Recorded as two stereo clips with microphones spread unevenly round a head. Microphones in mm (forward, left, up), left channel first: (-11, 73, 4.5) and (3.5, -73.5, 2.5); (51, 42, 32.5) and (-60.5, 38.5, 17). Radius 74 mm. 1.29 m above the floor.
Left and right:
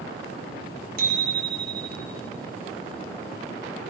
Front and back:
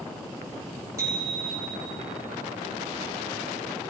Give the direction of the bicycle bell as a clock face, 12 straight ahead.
4 o'clock.